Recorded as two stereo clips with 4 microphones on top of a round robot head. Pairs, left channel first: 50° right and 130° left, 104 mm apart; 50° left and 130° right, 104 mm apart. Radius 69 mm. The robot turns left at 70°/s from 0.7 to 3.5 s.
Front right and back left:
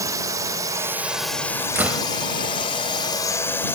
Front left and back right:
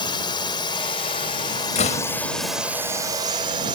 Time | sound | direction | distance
0.0 | a drone | 80° left | ?
1.8 | a door slam | 60° left | ?